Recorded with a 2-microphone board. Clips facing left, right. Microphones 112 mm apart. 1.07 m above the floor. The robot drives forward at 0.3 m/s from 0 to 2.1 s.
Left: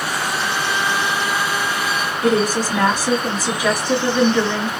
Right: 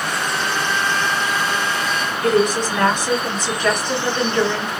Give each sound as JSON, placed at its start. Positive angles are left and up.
{"t": 2.2, "sound": "a woman speaking", "side_deg": 10, "distance_m": 1.5}